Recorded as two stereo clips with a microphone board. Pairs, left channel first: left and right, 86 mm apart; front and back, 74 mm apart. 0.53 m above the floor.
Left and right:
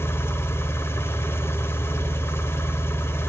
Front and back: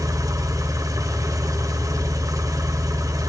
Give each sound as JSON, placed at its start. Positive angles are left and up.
{"t": 0.0, "sound": "an engine running", "azimuth_deg": 150, "distance_m": 2.0}